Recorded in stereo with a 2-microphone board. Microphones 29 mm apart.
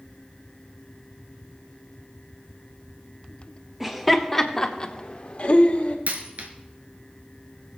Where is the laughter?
10° right (ahead or behind), 1.4 m; by 6.0 s 60° left (ahead or behind), 1.6 m.